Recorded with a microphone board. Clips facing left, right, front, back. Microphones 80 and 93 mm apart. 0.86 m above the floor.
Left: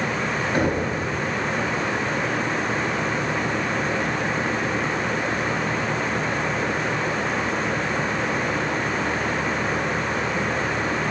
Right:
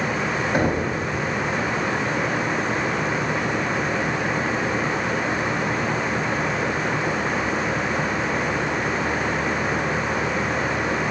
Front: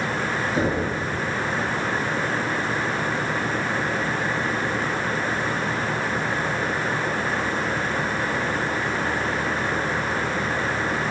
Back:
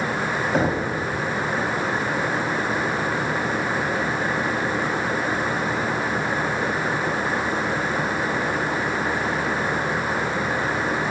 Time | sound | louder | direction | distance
0.5 | knocking | right 1 dB, back 2 dB | 160° right | 4.5 m